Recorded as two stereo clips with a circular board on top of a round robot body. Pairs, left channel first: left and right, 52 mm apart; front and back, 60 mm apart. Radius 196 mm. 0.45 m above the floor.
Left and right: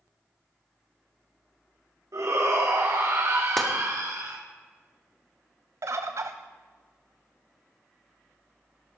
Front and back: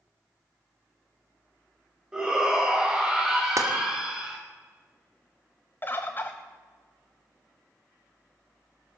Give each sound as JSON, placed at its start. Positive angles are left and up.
{"t": 2.1, "sound": "a shout", "azimuth_deg": -105, "distance_m": 3.5}
{"t": 3.6, "sound": "tapping", "azimuth_deg": 175, "distance_m": 2.0}
{"t": 5.8, "sound": "a bird", "azimuth_deg": -60, "distance_m": 0.8}